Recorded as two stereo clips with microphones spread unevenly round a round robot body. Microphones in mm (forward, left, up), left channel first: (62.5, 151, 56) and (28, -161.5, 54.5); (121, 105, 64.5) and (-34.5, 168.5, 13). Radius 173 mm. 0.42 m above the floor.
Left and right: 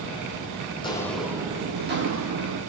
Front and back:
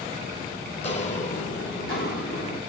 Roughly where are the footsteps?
Ahead.